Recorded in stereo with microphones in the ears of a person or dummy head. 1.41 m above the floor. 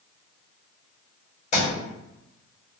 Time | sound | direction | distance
1.5 | a thud | 40° left (ahead or behind) | 1.7 m